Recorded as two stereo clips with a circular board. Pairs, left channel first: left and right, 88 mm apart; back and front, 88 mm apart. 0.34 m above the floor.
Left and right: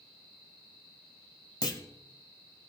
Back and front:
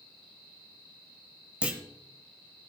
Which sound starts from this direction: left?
A clunk, at 1.6 s.